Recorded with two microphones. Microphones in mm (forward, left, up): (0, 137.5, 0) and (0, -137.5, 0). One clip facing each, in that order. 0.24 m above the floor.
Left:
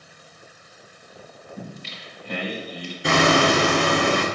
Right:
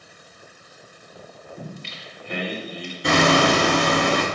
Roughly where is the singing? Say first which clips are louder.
Even; left.